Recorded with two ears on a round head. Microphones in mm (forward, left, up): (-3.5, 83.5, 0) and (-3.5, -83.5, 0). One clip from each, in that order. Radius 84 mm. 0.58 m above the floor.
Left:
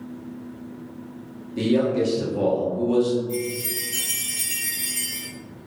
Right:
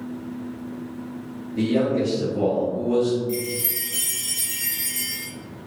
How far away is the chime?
About 1.9 m.